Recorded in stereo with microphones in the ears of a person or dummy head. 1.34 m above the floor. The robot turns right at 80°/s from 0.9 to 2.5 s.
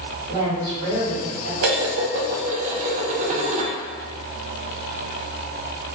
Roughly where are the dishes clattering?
Behind right.